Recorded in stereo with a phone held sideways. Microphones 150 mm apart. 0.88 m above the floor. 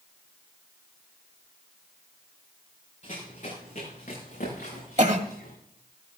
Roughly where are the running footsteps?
Left.